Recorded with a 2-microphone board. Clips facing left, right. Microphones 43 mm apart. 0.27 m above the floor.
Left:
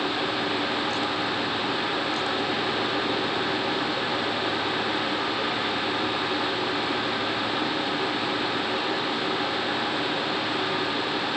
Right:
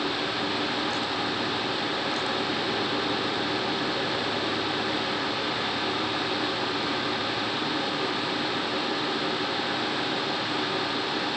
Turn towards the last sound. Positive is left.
No sound to turn to.